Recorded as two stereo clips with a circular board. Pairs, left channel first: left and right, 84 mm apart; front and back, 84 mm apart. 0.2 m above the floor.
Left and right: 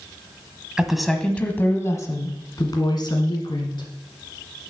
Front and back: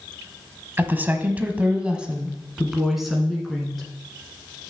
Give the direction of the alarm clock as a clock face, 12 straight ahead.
No alarm clock in this recording.